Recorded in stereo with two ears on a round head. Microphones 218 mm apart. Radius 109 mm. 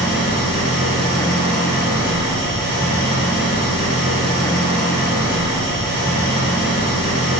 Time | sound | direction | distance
0.0 | an engine running | 45° right (ahead or behind) | 1.6 m